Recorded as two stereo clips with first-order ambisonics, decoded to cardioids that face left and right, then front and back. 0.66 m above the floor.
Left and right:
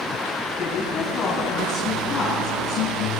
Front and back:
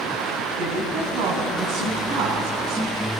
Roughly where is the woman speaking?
Behind.